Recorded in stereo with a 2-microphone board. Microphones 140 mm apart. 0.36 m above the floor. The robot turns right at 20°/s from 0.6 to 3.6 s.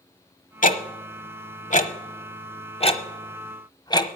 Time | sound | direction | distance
0.6 | ticking | 70° left (ahead or behind) | 0.9 m